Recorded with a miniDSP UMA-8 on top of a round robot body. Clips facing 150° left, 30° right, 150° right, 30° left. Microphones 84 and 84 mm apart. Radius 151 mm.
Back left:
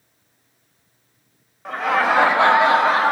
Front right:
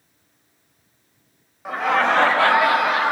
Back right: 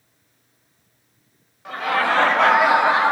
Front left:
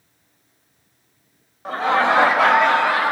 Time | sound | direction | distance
1.6 | laughter | 50° left | 1.0 m